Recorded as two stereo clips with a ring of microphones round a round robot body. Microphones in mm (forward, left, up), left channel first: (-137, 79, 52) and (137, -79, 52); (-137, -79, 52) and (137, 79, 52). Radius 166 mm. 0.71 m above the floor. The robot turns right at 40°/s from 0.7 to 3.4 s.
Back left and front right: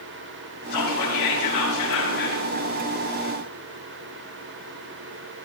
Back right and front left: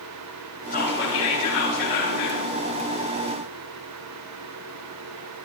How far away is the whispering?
About 8 m.